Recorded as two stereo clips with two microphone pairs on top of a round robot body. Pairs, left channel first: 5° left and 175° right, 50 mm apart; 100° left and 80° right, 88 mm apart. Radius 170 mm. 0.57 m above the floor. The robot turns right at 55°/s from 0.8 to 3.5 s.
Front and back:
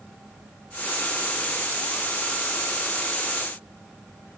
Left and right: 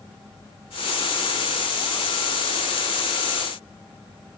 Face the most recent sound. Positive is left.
No sound to turn to.